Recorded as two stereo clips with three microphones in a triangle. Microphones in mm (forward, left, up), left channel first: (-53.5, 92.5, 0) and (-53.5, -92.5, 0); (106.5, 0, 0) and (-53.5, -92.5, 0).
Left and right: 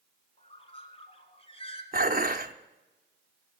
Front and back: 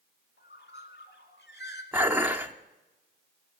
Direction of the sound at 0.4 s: 35° left.